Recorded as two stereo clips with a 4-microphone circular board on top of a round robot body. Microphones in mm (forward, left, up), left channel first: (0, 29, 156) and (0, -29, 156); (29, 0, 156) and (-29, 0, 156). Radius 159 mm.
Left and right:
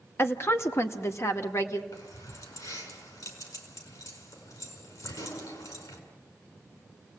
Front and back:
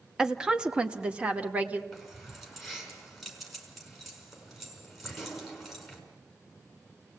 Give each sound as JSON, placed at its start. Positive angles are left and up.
{"t": 0.2, "sound": "a woman speaking", "azimuth_deg": 105, "distance_m": 1.5}
{"t": 1.9, "sound": "keys jangling", "azimuth_deg": 90, "distance_m": 5.5}